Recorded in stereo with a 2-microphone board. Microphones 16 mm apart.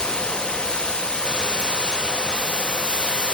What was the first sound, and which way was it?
Running water, 85° left.